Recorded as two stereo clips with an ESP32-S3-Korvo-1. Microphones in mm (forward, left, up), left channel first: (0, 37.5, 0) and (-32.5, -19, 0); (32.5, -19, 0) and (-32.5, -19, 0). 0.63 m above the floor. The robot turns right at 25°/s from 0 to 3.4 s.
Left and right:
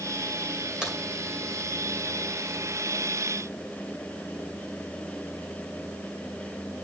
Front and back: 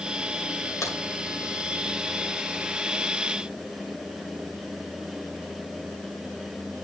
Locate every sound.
0.8 s a crack: 40° right, 2.5 m; by 1.0 s 35° right, 2.5 m